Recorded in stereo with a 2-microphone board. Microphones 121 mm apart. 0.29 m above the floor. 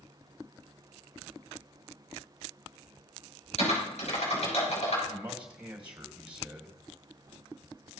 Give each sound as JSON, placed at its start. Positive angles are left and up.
{"t": 3.6, "sound": "typing on a keyboard", "side_deg": 65, "distance_m": 5.5}
{"t": 5.1, "sound": "a man speaking", "side_deg": -10, "distance_m": 1.7}